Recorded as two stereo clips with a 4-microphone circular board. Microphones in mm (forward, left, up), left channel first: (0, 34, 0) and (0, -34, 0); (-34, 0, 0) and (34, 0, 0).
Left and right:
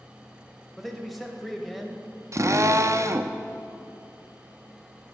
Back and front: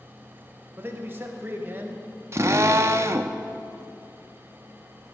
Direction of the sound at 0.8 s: 5° right.